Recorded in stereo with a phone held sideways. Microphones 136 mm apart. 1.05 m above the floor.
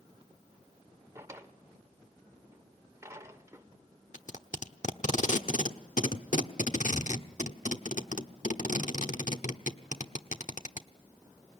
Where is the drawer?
20° right (ahead or behind), 1.4 m.